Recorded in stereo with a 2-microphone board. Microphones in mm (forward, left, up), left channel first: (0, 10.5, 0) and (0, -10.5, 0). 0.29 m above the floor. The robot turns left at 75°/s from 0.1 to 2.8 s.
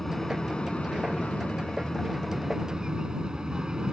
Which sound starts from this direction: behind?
An aircraft, at 0.0 s.